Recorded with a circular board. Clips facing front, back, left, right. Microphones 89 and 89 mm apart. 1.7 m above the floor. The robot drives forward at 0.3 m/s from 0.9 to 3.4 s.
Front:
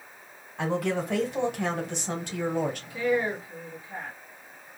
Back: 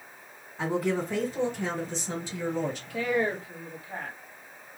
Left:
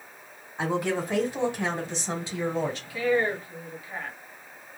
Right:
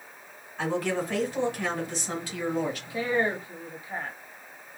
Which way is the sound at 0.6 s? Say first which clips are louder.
Even, left 1 dB; 20° left.